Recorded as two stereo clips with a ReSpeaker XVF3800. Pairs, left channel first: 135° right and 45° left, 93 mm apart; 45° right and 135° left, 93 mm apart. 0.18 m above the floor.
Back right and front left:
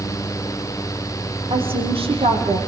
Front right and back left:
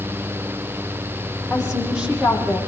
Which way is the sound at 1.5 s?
50° left.